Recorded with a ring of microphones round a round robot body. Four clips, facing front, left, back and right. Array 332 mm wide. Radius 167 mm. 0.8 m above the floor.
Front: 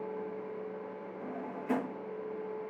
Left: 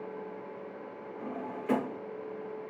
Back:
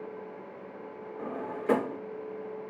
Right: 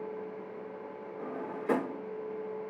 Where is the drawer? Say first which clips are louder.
Even, back 6 dB; 165° right, 0.8 m.